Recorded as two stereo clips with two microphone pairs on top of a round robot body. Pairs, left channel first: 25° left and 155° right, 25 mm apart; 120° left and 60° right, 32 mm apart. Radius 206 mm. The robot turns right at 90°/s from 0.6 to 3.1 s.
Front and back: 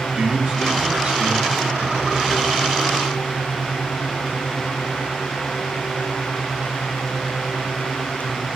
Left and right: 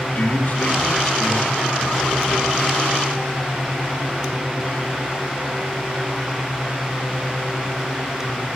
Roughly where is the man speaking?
Behind.